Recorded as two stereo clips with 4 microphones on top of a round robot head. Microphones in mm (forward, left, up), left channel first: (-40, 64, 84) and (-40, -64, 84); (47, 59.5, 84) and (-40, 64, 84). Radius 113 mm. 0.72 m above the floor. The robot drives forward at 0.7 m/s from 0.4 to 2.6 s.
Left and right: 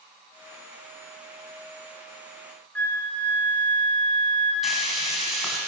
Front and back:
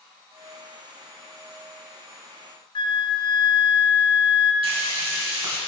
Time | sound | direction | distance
2.8 | a flute | 10° left | 1.3 m
4.6 | frying | straight behind | 3 m